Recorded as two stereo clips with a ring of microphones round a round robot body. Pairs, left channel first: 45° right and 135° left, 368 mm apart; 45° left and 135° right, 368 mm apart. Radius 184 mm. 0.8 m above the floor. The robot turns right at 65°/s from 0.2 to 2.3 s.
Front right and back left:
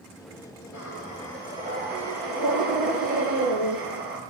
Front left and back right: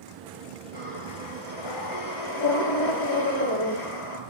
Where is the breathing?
Straight ahead, 7 m; by 4.2 s 105° left, 7 m.